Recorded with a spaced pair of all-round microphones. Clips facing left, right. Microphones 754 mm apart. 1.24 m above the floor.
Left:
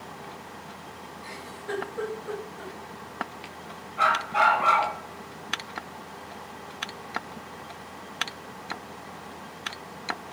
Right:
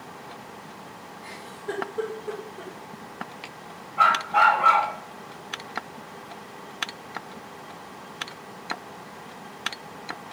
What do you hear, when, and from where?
1.2 s a giggle: 60° right (ahead or behind), 3.5 m
4.0 s a dog barking: 75° right (ahead or behind), 3.5 m